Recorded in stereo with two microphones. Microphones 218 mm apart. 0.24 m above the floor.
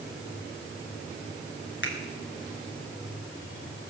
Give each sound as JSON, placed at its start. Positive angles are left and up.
{"t": 1.8, "sound": "a finger snap", "side_deg": 60, "distance_m": 2.0}